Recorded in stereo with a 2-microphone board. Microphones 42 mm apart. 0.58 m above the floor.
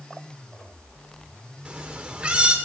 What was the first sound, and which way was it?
A cat meowing, 25° right (ahead or behind).